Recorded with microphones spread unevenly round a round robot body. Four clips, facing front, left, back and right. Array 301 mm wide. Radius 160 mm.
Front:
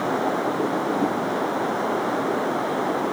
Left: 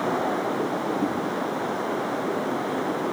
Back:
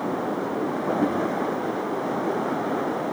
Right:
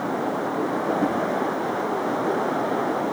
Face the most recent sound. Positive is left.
No sound to turn to.